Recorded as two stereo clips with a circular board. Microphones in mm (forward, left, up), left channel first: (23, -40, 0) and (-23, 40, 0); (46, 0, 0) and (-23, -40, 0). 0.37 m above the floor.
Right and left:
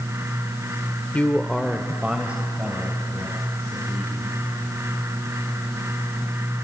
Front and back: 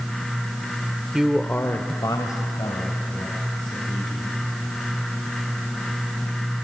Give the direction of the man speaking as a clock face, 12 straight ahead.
3 o'clock.